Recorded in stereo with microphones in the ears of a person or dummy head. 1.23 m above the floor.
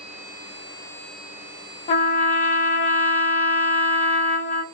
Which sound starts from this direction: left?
A trumpet, at 1.9 s.